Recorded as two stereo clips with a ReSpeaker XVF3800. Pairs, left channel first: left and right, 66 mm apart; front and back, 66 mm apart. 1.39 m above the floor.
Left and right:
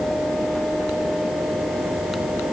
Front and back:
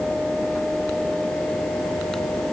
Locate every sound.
Only background noise.